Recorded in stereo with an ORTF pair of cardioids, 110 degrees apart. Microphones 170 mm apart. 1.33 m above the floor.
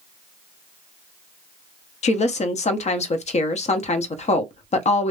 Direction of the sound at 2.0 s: 45° left.